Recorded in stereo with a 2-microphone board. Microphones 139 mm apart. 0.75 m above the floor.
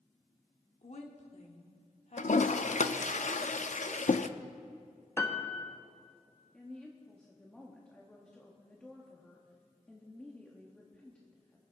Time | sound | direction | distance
0.8 | a woman speaking | 60° left (ahead or behind) | 1.7 m
2.2 | a toilet flushing | 65° left (ahead or behind) | 0.5 m
5.2 | a piano | 20° left (ahead or behind) | 1.0 m
6.5 | a woman speaking | 5° left (ahead or behind) | 1.3 m